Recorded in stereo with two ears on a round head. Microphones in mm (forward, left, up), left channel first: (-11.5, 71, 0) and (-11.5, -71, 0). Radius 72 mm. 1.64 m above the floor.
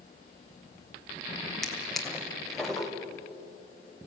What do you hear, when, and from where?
1.6 s a drawer: centre (ahead or behind), 1.9 m